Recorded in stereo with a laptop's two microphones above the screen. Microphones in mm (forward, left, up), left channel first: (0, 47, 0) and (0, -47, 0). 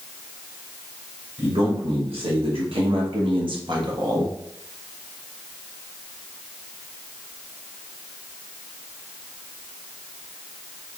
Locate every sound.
1.4 s a man speaking: 70° right (ahead or behind), 2.5 m; by 4.4 s 35° right (ahead or behind), 1.4 m